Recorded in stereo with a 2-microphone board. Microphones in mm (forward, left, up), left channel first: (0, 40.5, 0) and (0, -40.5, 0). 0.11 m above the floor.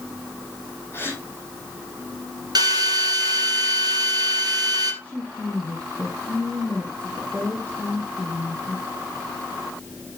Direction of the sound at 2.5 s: 55° right (ahead or behind).